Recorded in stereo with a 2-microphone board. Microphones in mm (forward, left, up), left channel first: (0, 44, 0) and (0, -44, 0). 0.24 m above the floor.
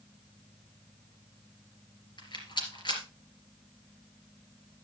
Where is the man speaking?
No man speaking in this recording.